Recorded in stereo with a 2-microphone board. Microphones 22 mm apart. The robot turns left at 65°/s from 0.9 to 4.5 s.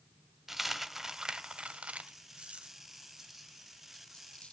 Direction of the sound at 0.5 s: 10° right (ahead or behind).